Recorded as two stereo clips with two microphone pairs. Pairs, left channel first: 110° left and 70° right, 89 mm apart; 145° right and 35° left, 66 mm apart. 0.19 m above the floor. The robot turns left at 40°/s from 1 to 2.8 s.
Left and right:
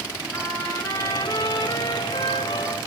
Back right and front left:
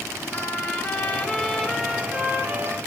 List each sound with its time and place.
0.3 s a trumpet: 160° left, 3 m; by 2.8 s 90° left, 3 m